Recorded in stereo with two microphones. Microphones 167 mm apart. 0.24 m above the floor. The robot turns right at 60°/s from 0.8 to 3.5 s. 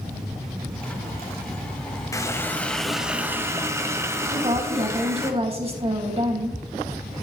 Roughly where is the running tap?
Centre.